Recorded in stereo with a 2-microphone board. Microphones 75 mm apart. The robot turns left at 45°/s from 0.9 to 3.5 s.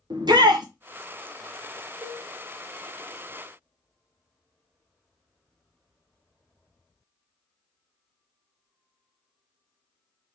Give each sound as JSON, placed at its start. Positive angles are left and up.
{"t": 0.1, "sound": "a shout", "side_deg": -70, "distance_m": 1.0}
{"t": 2.0, "sound": "a cowbell", "side_deg": -25, "distance_m": 0.8}